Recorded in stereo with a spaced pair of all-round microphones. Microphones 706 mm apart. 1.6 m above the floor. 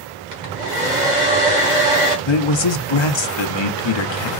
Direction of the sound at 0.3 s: 85° right.